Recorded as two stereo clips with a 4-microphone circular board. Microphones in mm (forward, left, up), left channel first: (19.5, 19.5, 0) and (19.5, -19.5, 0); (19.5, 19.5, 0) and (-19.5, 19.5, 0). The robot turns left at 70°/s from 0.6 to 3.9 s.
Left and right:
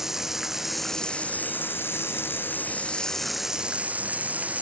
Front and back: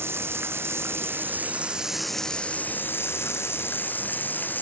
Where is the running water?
170° right; by 4.6 s 40° right.